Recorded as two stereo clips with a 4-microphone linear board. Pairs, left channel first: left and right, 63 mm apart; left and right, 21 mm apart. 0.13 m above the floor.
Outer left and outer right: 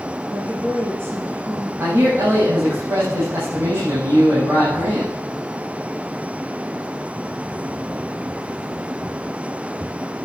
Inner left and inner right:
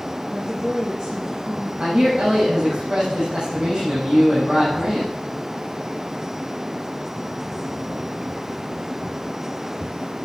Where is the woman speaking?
45° right (ahead or behind), 2 m.